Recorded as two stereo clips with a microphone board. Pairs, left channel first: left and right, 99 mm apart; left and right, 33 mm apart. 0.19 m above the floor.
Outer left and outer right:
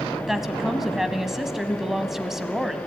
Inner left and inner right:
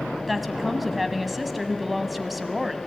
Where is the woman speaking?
5° right (ahead or behind), 1.0 m.